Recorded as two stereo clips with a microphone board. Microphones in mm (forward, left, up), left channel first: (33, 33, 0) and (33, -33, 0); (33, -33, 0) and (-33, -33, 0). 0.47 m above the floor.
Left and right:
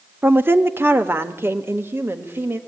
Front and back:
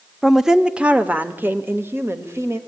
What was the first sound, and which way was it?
A woman speaking, 95° right.